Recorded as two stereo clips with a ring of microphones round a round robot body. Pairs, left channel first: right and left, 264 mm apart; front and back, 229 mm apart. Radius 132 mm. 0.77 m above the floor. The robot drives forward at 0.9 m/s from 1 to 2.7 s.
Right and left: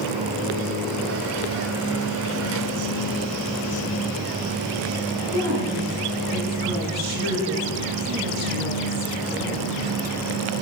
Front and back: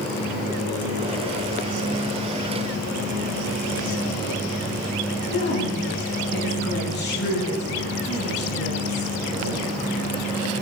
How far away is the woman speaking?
About 6.5 m.